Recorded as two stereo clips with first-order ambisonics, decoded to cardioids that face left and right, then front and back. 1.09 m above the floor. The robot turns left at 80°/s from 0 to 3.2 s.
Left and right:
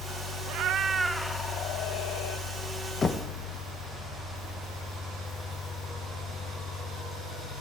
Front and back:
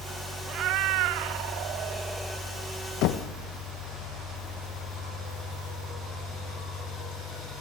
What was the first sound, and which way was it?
A cat meowing, 125° right.